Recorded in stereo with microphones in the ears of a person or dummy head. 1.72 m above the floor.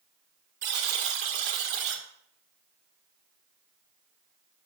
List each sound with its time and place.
0.6 s a buzzer: 50° right (ahead or behind), 1.3 m